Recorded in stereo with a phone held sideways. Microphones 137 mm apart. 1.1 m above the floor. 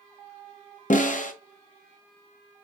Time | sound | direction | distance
0.9 | a snare drum | 65° left (ahead or behind) | 0.6 m